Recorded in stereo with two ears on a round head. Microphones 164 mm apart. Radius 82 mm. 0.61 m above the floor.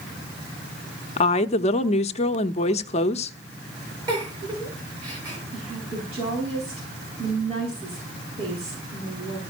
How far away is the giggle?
About 5.5 m.